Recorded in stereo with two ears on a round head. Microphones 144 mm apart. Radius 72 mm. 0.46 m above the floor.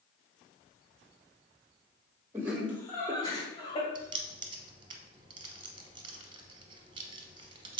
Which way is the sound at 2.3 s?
15° right (ahead or behind).